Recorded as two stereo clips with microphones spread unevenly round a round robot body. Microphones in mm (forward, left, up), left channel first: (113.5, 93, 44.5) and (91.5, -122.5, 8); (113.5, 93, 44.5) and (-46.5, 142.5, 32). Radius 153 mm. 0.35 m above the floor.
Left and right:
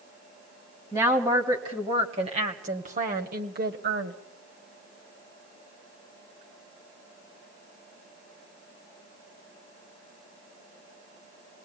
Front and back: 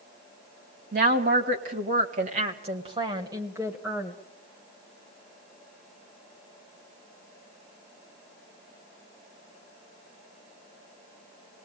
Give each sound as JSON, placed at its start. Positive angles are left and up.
{"t": 0.9, "sound": "a woman speaking", "azimuth_deg": -170, "distance_m": 2.0}